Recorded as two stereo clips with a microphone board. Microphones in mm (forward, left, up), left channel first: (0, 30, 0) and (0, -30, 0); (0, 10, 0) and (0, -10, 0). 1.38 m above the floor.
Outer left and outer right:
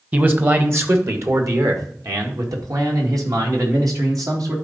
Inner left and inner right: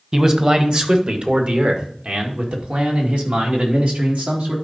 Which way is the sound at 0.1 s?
25° right (ahead or behind).